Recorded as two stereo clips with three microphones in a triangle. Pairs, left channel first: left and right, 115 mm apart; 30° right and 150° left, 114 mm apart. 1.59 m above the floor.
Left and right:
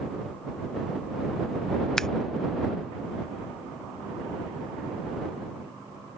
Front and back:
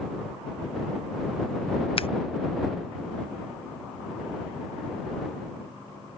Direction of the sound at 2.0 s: 5° left.